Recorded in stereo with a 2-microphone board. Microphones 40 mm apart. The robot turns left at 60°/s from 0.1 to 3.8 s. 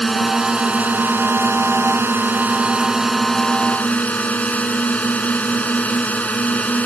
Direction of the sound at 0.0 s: 5° left.